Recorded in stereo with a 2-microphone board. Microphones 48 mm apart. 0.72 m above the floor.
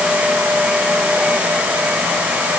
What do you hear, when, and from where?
Only background noise.